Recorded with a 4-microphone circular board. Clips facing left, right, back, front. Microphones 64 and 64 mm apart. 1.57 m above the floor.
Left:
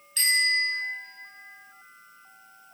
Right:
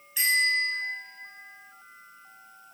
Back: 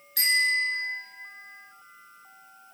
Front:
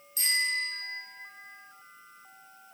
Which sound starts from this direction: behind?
A bicycle bell, at 0.2 s.